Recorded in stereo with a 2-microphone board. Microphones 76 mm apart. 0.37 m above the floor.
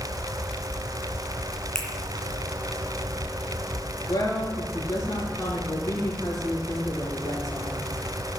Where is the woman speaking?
55° left (ahead or behind), 5 m.